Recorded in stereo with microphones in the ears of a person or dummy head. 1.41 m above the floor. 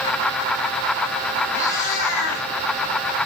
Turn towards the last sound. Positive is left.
turn(degrees=70)  # may be behind; listen again after turning